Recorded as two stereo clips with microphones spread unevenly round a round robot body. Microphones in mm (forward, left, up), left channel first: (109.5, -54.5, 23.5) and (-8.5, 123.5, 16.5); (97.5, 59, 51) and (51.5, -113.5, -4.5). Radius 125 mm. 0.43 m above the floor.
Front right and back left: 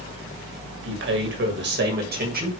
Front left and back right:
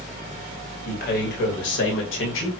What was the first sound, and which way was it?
A man speaking, 130° left.